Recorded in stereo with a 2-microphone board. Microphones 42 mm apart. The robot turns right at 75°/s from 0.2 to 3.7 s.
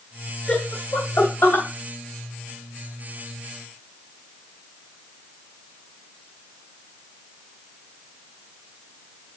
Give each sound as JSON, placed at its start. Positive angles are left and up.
{"t": 0.5, "sound": "laughter", "side_deg": 35, "distance_m": 2.5}